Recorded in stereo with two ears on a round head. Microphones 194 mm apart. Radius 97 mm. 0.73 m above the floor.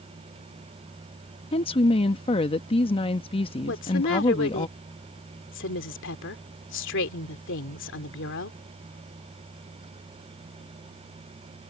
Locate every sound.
1.5 s a woman speaking: 25° left (ahead or behind)
3.7 s a woman speaking: 60° left (ahead or behind)